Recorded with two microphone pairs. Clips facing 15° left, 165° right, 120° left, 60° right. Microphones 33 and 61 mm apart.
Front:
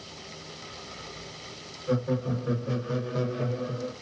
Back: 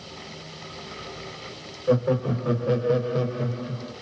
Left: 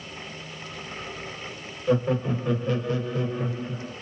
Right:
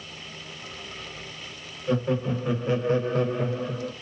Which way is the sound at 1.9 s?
165° right.